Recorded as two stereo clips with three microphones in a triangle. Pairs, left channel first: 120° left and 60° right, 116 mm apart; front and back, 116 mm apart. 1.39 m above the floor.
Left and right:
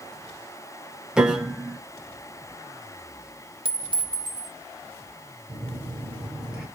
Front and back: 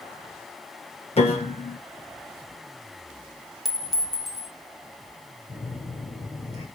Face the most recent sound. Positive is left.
turn(degrees=25)